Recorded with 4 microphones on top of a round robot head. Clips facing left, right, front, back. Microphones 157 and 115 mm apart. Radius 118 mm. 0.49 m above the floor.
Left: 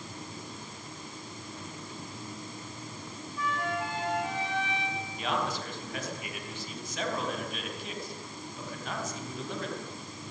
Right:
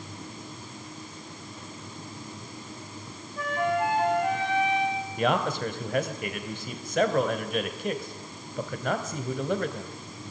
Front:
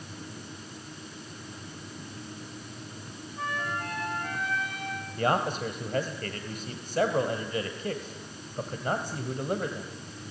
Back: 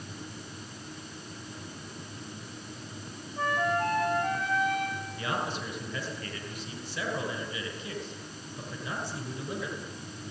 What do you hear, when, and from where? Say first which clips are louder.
3.4 s a flute: right 7 dB, back 6 dB; 125° right, 4 m
5.2 s a man speaking: right 7 dB, front 8 dB; 50° right, 3 m